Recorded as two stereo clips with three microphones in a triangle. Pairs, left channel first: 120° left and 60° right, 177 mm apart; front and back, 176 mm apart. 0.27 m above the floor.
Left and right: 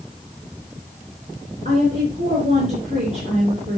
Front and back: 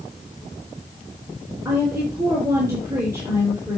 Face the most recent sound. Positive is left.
turn(degrees=-105)